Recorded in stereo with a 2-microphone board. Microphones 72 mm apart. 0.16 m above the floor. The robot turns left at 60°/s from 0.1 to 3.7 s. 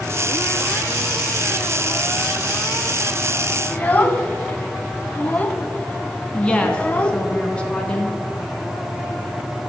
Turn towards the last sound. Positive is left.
turn(degrees=15)  # may be behind; listen again after turning